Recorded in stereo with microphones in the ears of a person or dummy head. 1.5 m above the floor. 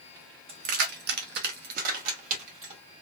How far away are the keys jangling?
About 0.7 m.